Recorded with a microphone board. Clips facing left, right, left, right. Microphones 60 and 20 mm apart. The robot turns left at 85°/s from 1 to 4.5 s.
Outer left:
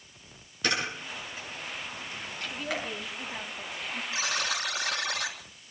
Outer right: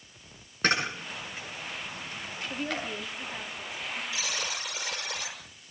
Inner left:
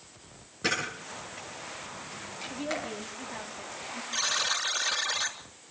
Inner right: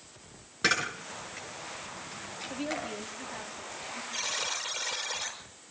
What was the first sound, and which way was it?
A camera shutter, 40° right (ahead or behind).